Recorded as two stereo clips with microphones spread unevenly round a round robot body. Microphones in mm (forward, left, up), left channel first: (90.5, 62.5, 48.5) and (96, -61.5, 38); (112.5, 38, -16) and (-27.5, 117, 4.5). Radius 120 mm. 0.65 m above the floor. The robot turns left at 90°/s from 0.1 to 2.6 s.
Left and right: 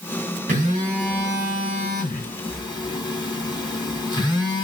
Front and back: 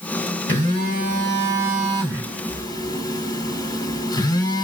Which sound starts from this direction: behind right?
A phone buzzing, at 0.5 s.